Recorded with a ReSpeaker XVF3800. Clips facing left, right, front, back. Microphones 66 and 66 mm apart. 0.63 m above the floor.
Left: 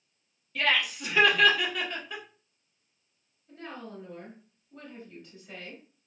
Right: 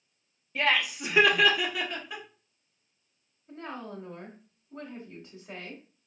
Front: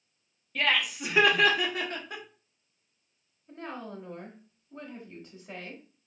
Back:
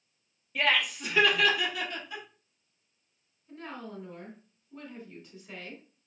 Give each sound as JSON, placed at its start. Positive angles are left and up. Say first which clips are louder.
{"t": 0.6, "sound": "laughter", "louder": "right 1 dB, even", "azimuth_deg": -115, "distance_m": 0.7}
{"t": 3.5, "sound": "a woman speaking", "louder": "right 2 dB, front 2 dB", "azimuth_deg": -35, "distance_m": 1.0}